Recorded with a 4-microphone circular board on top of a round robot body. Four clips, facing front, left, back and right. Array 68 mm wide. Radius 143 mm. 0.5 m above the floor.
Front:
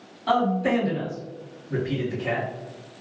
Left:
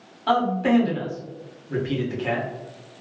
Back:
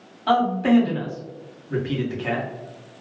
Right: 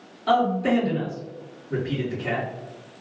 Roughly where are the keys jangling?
I don't hear keys jangling.